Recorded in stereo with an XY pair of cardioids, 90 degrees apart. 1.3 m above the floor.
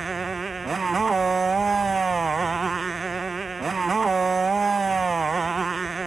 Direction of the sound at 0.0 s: 35° right.